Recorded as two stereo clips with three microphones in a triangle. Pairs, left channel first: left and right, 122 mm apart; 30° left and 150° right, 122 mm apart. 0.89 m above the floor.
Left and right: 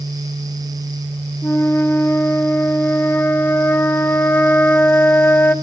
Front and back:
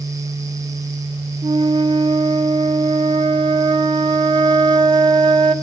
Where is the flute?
165° left, 0.9 m.